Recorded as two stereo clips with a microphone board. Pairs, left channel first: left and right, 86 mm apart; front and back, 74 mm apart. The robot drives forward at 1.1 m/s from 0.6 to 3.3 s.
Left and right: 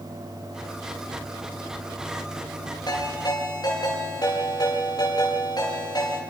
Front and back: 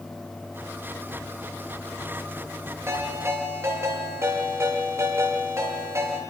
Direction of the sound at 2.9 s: 130° left.